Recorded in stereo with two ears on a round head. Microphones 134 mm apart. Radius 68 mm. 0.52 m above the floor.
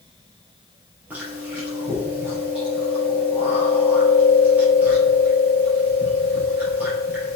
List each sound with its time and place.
1.1 s chewing: 10° right (ahead or behind), 4.5 m